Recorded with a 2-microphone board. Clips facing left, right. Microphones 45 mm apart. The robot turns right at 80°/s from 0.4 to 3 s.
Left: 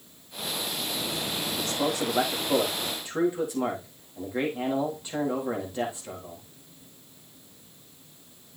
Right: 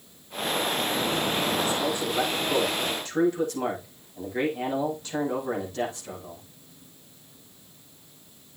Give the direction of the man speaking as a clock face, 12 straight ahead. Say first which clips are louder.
Right 2 dB; 10 o'clock.